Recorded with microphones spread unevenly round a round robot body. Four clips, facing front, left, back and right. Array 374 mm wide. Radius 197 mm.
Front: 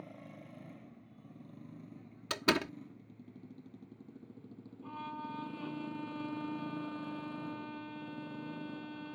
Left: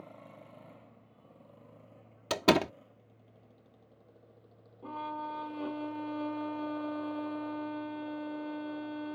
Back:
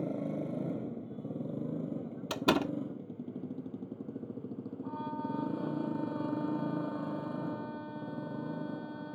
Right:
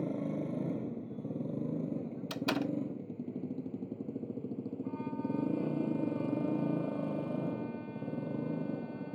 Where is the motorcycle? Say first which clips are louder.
Right 16 dB, back 16 dB; 130° right; by 9.2 s 110° right.